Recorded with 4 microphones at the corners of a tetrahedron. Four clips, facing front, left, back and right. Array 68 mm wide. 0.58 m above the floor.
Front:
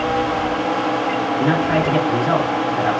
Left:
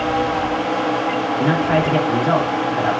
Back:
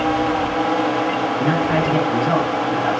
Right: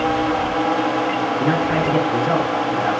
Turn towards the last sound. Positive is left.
turn(degrees=95)